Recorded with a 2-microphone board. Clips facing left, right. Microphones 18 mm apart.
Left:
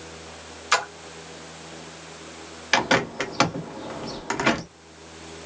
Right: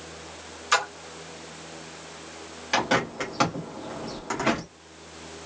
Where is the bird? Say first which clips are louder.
Left 3 dB; 40° left (ahead or behind), 0.9 m.